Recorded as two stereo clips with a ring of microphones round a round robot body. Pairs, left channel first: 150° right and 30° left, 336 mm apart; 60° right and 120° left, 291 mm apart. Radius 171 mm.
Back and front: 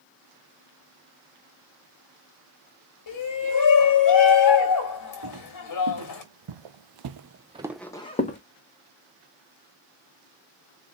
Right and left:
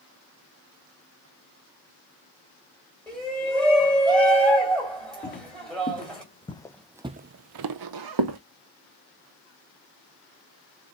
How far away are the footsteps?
About 1.9 m.